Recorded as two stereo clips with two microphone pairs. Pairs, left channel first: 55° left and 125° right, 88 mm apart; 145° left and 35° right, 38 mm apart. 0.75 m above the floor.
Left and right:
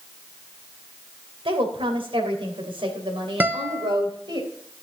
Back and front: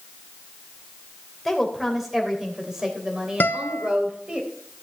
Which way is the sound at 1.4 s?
125° right.